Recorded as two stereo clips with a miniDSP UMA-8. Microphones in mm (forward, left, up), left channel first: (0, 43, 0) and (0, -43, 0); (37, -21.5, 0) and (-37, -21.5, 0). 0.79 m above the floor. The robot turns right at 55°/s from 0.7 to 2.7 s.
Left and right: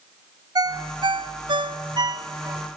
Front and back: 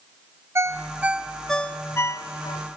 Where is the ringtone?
125° right, 0.6 m; by 2.6 s 25° right, 0.6 m.